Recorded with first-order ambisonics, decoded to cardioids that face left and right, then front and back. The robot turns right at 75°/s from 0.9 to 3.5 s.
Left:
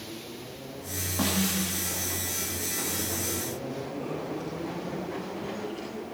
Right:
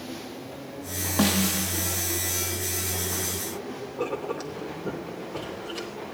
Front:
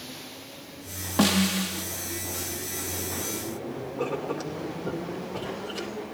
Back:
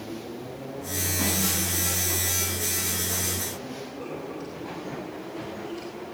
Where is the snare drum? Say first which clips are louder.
Right 4 dB, front 5 dB; 30° right, 1.6 m; by 1.9 s 20° left, 1.6 m.